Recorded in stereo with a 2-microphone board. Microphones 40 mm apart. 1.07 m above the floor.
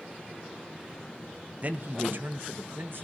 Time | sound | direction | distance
1.6 | a man speaking | 40° right (ahead or behind) | 0.6 m